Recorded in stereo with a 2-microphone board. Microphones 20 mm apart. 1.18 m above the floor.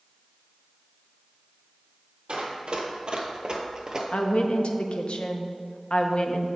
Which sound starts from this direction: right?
Running footsteps, at 2.3 s.